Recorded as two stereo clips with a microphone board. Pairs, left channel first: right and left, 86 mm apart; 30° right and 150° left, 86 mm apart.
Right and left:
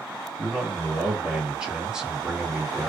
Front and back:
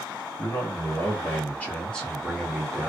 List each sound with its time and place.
0.4 s a man speaking: 5° left, 1.5 m; by 2.9 s 125° left, 1.1 m